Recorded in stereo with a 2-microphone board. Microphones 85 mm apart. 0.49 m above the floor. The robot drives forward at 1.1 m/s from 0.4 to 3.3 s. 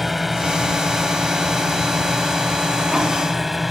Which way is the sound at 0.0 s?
Centre (ahead or behind).